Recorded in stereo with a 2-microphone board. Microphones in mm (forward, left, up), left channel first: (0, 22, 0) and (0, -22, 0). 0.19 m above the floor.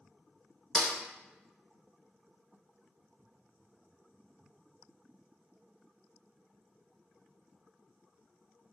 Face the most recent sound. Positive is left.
turn(degrees=-5)  # may be behind; listen again after turning